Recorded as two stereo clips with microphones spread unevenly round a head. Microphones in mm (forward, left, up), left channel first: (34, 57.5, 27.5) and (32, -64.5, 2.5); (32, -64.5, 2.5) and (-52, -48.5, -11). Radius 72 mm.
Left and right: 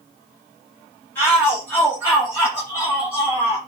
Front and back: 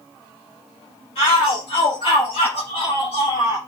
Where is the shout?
15° left, 7 m; by 3.6 s 20° left, 9 m.